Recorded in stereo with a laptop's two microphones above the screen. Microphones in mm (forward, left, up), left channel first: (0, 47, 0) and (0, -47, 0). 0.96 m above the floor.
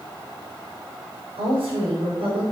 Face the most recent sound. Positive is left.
turn(degrees=-70)  # may be behind; listen again after turning